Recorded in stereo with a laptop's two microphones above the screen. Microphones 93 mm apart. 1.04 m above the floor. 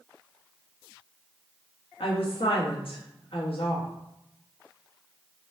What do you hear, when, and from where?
2.0 s a woman speaking: 80° left, 1.3 m